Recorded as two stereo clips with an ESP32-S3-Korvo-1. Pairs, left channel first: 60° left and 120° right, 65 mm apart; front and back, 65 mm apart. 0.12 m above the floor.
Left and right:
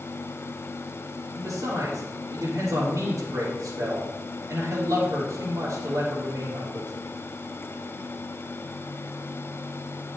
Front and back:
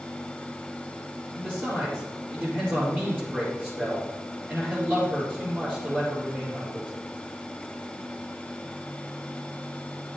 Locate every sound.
1.4 s a man speaking: 130° right, 3 m